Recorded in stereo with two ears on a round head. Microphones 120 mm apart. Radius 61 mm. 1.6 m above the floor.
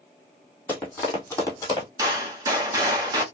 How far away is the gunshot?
About 1.1 m.